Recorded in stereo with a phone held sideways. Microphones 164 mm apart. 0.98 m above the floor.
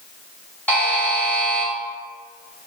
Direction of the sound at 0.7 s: 10° left (ahead or behind).